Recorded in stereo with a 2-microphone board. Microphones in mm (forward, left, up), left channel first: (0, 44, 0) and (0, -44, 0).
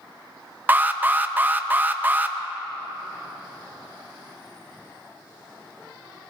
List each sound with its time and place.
0.7 s an alarm: 20° right (ahead or behind), 0.6 m